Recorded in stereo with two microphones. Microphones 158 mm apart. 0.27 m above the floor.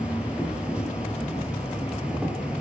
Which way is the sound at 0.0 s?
5° right (ahead or behind).